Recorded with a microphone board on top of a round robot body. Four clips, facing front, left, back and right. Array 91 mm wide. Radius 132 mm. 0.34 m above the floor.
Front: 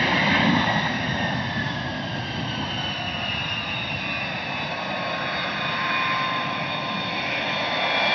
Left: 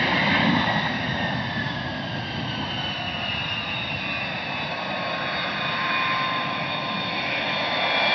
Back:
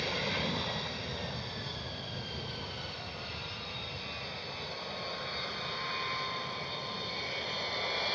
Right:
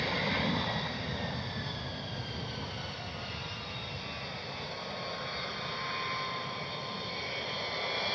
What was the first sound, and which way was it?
An aircraft, 40° left.